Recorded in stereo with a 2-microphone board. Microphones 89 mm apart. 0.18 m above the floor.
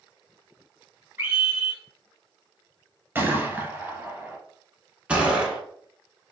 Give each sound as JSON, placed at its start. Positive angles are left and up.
{"t": 1.2, "sound": "a scream", "side_deg": -25, "distance_m": 1.8}
{"t": 3.1, "sound": "a gunshot", "side_deg": -25, "distance_m": 0.8}
{"t": 5.1, "sound": "a gunshot", "side_deg": -15, "distance_m": 0.9}